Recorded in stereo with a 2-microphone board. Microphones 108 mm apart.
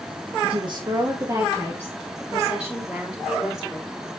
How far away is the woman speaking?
About 1.2 m.